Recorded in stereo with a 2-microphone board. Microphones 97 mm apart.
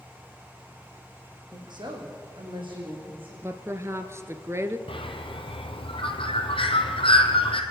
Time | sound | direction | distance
1.5 | a woman speaking | 50° right (ahead or behind) | 5 m
3.4 | a woman speaking | 30° right (ahead or behind) | 1.6 m
4.9 | a bird | 75° left (ahead or behind) | 2 m